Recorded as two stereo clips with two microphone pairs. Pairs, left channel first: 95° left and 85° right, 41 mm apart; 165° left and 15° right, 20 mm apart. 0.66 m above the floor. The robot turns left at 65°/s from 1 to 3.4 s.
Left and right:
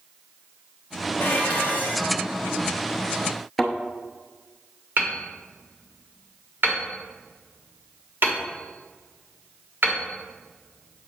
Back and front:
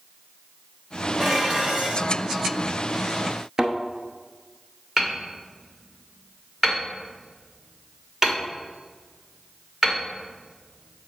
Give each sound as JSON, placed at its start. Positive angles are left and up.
{"t": 1.2, "sound": "dishes clattering", "azimuth_deg": 75, "distance_m": 1.6}
{"t": 3.6, "sound": "a thud", "azimuth_deg": 15, "distance_m": 0.7}
{"t": 5.0, "sound": "hammering", "azimuth_deg": -75, "distance_m": 1.3}